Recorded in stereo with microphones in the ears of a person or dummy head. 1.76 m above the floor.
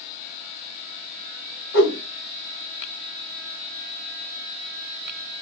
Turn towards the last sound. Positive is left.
turn(degrees=55)  # may be behind; listen again after turning